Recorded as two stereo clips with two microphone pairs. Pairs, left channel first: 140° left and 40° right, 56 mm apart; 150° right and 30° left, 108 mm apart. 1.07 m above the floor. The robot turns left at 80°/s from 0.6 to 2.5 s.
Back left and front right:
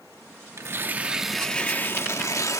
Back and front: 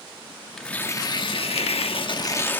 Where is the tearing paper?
70° right, 1.1 m; by 2.6 s 140° left, 1.1 m.